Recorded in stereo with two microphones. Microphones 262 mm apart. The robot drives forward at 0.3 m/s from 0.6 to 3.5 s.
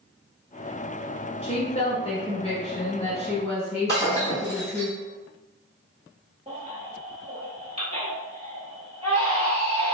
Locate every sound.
1.4 s a woman speaking: 25° left (ahead or behind), 1.3 m
3.9 s breaking glass: 15° left (ahead or behind), 1.8 m
6.5 s a baby crying: 25° right (ahead or behind), 1.2 m